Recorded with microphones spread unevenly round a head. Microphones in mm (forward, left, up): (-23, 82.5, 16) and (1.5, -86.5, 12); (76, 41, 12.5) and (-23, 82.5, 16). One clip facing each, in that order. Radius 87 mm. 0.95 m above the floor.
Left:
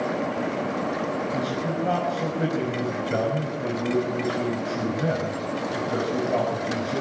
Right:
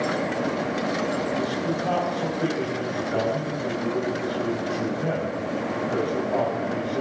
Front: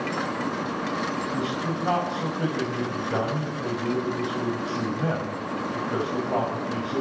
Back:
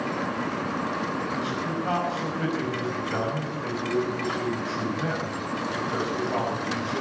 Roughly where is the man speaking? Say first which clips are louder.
Right 1 dB, front 1 dB; ahead left.